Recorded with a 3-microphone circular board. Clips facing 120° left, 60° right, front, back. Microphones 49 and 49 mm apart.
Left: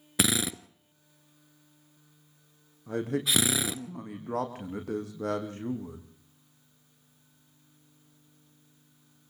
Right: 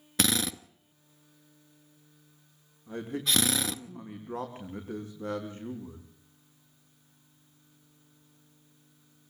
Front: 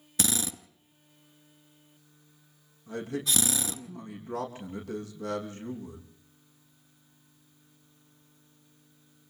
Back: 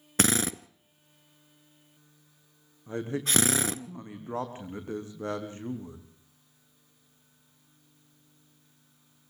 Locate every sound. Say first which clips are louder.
0.2 s a drill: left 1 dB, back 6 dB; 165° right, 0.8 m
2.9 s a man speaking: left 3 dB, back 1 dB; 120° left, 6 m